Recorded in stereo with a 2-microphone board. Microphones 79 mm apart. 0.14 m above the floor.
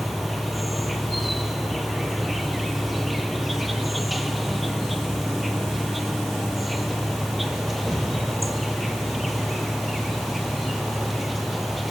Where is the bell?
No bell in this recording.